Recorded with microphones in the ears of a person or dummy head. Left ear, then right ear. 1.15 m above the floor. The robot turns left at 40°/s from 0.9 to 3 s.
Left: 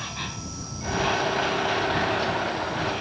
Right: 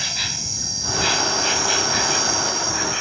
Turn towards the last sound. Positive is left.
turn(degrees=-125)